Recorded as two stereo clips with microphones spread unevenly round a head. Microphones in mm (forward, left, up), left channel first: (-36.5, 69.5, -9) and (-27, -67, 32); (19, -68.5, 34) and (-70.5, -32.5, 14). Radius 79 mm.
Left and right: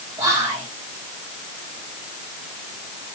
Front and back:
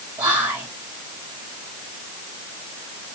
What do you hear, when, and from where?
0.2 s whispering: 155° right, 1.2 m